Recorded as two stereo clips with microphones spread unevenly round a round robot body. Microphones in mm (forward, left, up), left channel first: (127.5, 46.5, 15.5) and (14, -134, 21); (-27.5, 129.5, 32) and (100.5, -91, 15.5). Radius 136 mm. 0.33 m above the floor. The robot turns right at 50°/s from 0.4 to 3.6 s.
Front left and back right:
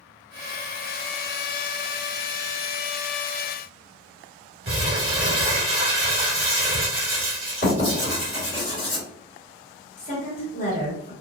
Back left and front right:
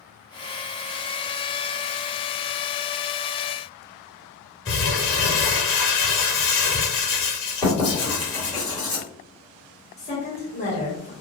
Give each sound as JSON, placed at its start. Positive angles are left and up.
{"t": 4.7, "sound": "crumpling", "azimuth_deg": 170, "distance_m": 1.3}
{"t": 7.6, "sound": "writing", "azimuth_deg": 50, "distance_m": 1.9}
{"t": 10.0, "sound": "a woman speaking", "azimuth_deg": 65, "distance_m": 1.2}